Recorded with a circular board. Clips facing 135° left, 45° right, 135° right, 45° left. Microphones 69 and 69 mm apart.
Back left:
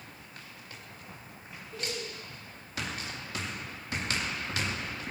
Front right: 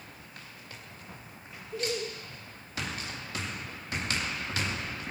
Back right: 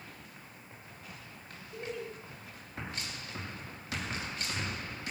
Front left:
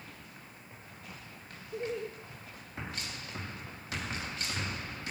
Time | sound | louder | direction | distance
1.7 | laughter | front right 5 dB, front left 4 dB | 15° left | 1.7 m